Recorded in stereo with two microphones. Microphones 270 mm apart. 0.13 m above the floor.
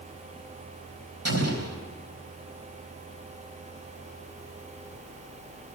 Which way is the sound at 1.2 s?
65° right (ahead or behind).